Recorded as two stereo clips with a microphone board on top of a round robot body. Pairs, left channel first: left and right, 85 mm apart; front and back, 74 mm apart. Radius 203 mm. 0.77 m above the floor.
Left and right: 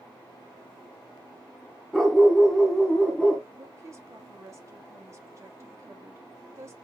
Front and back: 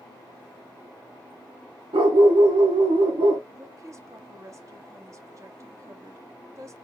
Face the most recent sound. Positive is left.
turn(degrees=-140)